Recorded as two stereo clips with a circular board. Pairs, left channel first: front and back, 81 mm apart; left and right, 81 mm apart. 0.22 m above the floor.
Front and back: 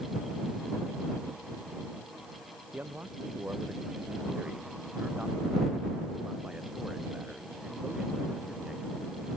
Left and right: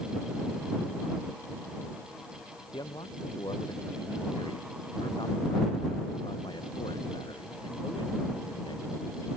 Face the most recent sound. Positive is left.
turn(degrees=95)